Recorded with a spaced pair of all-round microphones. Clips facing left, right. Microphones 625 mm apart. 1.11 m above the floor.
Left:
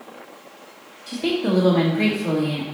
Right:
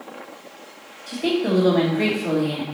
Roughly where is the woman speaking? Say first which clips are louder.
Right 1 dB; left.